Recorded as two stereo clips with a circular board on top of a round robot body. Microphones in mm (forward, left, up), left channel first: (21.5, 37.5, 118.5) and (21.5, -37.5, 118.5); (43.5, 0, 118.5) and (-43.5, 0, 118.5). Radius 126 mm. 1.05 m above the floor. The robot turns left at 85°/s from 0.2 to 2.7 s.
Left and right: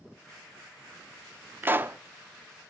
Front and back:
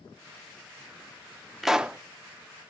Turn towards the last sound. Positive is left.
turn(degrees=175)